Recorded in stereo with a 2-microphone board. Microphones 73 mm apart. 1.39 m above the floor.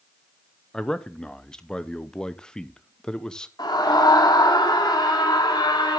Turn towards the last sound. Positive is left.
turn(degrees=75)  # may be behind; listen again after turning